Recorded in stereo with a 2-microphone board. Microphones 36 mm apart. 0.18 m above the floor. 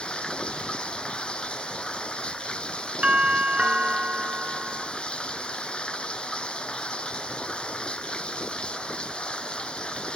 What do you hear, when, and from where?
0.0 s running water: 30° left (ahead or behind)
3.0 s a doorbell: 30° right (ahead or behind)